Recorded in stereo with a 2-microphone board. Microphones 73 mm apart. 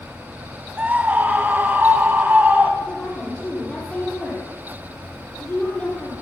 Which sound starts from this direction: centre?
A woman speaking, at 2.8 s.